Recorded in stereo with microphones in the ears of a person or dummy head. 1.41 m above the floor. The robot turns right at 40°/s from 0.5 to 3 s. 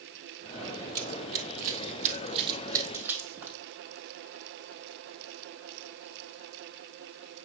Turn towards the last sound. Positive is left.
turn(degrees=-15)  # may be behind; listen again after turning